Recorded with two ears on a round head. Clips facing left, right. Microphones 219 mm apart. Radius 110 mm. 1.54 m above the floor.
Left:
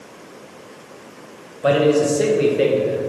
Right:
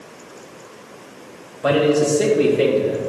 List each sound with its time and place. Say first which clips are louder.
1.6 s a man speaking: left 1 dB; centre (ahead or behind), 1.3 m